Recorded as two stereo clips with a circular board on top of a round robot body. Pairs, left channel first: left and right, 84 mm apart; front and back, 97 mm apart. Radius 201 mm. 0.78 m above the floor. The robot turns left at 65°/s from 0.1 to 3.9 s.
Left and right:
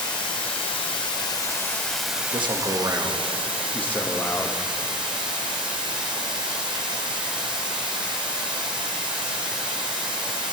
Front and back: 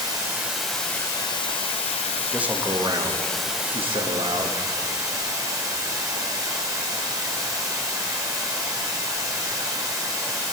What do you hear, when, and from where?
0.0 s running water: 125° left, 1.2 m; by 10.5 s 120° right, 1.2 m
2.3 s a man speaking: 100° right, 1.3 m; by 4.6 s 160° left, 1.3 m